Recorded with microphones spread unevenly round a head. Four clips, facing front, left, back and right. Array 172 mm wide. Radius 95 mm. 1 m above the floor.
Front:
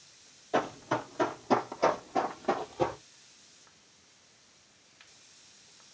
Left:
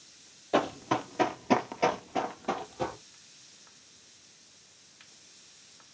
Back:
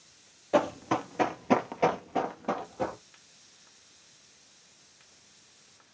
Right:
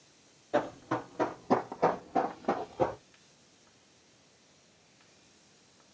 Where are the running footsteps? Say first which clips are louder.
Left 3 dB, back 4 dB; 140° left, 1.4 m; by 3.0 s 90° right, 1.4 m.